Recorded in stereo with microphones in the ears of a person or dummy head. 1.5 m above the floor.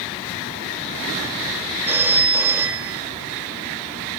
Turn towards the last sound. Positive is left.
turn(degrees=-10)  # may be behind; listen again after turning